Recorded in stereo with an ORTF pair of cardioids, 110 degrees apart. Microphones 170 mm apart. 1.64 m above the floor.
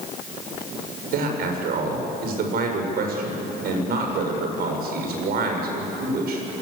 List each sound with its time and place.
1.1 s a man speaking: 65° right, 6.5 m